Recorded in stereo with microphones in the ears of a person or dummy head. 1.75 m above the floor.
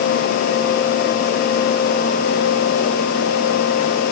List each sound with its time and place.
Only background noise.